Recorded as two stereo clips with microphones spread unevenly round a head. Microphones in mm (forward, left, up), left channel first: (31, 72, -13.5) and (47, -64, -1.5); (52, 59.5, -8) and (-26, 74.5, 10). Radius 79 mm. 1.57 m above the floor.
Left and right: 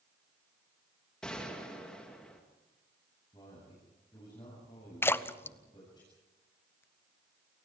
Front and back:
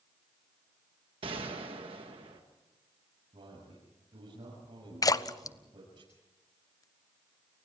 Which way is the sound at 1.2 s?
175° right.